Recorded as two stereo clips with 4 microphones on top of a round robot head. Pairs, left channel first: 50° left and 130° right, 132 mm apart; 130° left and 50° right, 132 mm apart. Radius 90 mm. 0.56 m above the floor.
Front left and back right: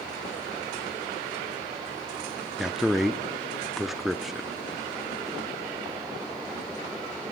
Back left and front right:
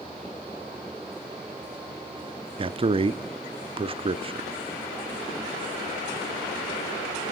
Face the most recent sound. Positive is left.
turn(degrees=-45)